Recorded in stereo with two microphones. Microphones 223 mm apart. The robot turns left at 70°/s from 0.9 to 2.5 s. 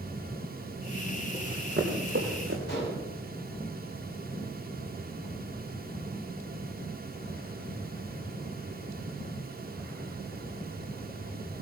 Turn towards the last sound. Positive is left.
turn(degrees=50)  # may be behind; listen again after turning